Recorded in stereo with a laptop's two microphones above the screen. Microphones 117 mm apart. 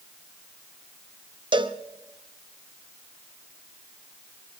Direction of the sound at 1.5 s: 40° right (ahead or behind).